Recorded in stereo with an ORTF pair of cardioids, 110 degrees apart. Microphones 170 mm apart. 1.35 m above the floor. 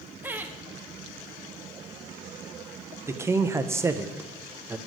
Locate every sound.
0.2 s laughter: 10° right, 0.9 m
3.1 s a man speaking: 15° right, 0.6 m